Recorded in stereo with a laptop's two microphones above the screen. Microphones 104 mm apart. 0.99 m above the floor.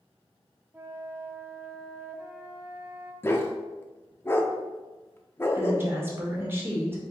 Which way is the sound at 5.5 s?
20° right (ahead or behind).